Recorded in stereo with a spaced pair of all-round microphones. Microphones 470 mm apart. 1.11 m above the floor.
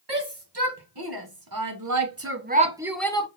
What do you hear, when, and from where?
0.1 s a shout: 60° right (ahead or behind), 1.5 m; by 3.3 s 15° left (ahead or behind), 0.6 m